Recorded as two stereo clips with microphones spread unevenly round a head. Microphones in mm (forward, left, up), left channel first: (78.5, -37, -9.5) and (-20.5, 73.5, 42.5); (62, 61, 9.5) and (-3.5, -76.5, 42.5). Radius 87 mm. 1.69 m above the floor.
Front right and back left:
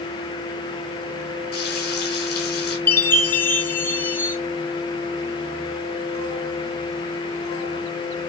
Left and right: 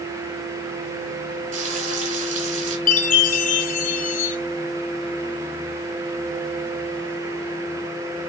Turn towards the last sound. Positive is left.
turn(degrees=45)